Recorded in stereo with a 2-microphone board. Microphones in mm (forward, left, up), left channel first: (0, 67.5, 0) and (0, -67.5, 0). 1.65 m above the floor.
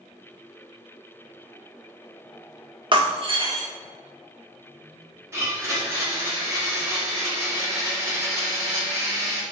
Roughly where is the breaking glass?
Right.